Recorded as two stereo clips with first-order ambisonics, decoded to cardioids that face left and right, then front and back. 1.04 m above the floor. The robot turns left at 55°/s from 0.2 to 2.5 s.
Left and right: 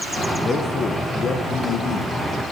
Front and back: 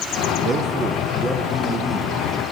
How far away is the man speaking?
About 0.8 m.